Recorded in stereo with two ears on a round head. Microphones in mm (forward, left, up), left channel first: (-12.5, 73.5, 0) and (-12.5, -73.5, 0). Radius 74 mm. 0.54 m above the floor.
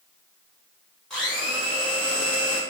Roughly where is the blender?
Centre.